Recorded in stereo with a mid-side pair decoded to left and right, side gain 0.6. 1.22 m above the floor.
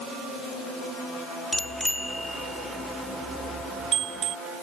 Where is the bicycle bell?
10° left; by 4.3 s 50° right.